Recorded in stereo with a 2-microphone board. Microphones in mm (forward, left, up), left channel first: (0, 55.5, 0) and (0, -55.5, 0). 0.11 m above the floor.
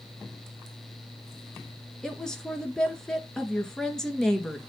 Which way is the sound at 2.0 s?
5° left (ahead or behind).